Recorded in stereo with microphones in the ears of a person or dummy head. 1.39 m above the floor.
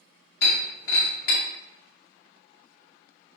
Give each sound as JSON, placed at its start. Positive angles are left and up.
{"t": 0.4, "sound": "breaking glass", "side_deg": 65, "distance_m": 1.6}